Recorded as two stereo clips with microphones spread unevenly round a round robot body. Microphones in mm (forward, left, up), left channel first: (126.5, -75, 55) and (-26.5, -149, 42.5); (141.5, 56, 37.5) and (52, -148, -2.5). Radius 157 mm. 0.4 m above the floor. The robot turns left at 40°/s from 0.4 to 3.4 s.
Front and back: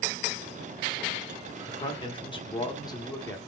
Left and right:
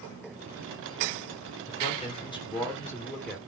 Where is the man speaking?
30° left, 1.2 m; by 3.4 s 40° right, 1.2 m.